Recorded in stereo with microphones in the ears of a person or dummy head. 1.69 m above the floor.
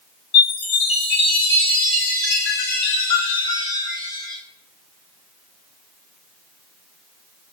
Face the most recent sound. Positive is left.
turn(degrees=30)  # may be behind; listen again after turning